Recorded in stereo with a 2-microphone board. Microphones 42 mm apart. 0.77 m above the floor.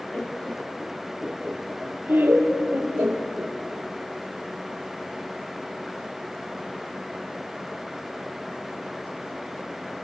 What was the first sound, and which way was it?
Laughter, 30° left (ahead or behind).